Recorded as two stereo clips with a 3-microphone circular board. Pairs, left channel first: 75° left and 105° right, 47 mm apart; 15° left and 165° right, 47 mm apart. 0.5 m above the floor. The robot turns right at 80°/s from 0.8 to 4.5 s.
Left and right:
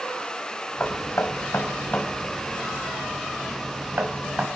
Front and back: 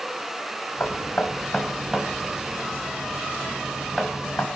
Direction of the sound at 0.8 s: 35° left.